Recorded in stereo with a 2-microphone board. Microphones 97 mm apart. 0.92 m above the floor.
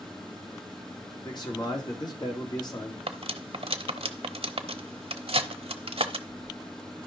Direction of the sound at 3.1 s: 80° right.